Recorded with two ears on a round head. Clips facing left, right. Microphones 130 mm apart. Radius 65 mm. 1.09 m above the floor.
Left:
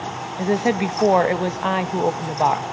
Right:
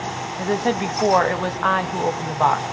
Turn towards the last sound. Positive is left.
turn(degrees=20)  # may be behind; listen again after turning